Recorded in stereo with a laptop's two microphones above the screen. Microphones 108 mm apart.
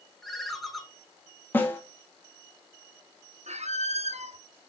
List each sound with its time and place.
0.2 s a ringtone: centre (ahead or behind), 1.6 m
1.5 s a snare drum: 20° left (ahead or behind), 1.9 m
3.5 s a squeak: 85° right, 0.8 m